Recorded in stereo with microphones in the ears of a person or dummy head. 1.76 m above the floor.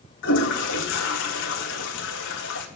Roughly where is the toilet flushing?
Left.